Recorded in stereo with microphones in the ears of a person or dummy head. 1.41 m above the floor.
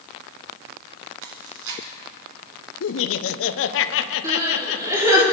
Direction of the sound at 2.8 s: 65° left (ahead or behind).